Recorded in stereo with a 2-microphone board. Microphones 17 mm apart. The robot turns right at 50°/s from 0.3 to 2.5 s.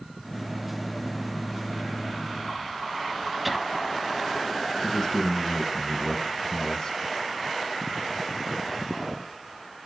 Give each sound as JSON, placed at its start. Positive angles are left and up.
{"t": 3.5, "sound": "laughter", "side_deg": -10, "distance_m": 1.1}
{"t": 4.8, "sound": "a man speaking", "side_deg": 40, "distance_m": 1.9}